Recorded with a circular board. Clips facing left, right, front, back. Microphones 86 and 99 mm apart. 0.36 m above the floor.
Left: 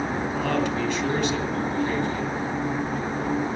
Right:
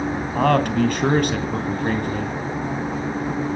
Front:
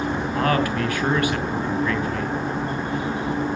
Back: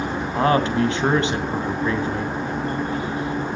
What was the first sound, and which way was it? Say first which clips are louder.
A man speaking: right 9 dB, back 4 dB; 120° right.